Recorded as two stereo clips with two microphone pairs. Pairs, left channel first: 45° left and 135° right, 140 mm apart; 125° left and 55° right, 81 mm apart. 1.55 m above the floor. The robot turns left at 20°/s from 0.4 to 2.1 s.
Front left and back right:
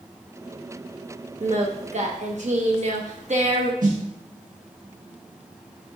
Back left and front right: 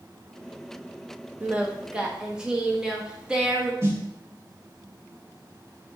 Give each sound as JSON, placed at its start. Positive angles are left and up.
{"t": 1.4, "sound": "singing", "azimuth_deg": -120, "distance_m": 1.2}
{"t": 3.8, "sound": "a snare drum", "azimuth_deg": -110, "distance_m": 2.0}